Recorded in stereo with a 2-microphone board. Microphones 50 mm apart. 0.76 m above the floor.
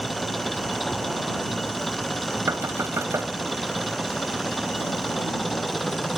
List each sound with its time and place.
0.0 s an engine running: centre (ahead or behind)
2.5 s knocking: 75° right (ahead or behind)